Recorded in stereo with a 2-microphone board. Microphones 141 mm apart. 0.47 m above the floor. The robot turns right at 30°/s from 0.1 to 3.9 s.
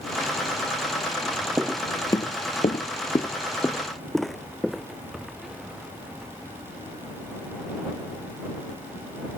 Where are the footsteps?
20° right (ahead or behind); by 6.3 s 5° right (ahead or behind).